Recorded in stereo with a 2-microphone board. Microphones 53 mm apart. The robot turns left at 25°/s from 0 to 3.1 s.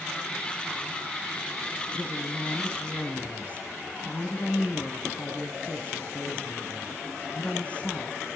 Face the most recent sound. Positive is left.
turn(degrees=25)  # may be behind; listen again after turning